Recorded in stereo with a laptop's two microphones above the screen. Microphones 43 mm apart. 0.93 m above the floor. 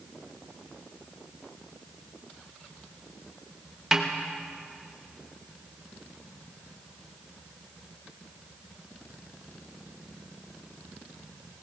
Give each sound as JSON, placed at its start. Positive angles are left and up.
{"t": 3.9, "sound": "a snare drum", "side_deg": -15, "distance_m": 1.0}